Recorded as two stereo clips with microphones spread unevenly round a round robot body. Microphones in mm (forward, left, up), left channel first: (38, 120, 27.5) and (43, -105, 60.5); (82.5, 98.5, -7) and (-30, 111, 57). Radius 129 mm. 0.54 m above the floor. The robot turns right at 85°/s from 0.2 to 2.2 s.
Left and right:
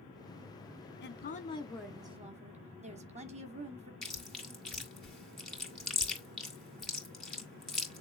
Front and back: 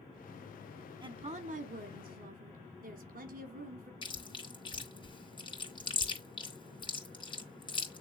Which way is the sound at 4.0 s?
5° left.